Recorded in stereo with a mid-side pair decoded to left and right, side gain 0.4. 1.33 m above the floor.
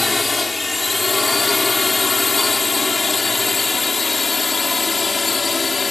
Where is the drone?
20° left; by 5.9 s 35° left.